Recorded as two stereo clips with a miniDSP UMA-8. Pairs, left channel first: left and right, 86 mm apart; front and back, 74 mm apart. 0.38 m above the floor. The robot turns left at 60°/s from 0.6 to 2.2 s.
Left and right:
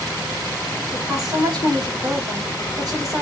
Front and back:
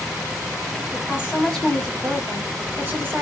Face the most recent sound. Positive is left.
turn(degrees=-120)